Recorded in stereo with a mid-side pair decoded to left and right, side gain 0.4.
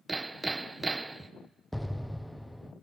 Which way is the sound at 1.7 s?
5° left.